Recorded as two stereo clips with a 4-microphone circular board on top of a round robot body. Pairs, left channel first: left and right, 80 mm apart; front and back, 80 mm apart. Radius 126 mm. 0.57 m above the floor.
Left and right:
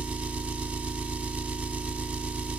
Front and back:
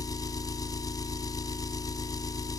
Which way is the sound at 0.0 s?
15° right.